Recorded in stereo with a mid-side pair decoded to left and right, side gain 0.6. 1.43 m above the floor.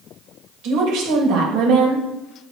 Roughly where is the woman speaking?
Right.